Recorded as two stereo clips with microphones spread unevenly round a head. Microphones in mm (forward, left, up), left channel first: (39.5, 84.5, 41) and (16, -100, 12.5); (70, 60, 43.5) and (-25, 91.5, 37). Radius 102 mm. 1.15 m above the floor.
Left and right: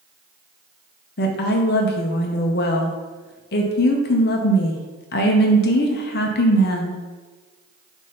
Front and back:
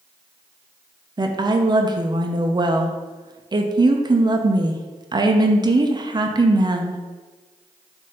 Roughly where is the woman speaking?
Behind left.